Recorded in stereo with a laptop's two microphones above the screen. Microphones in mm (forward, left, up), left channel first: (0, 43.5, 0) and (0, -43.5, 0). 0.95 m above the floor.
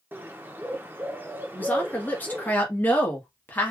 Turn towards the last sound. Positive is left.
turn(degrees=20)  # may be behind; listen again after turning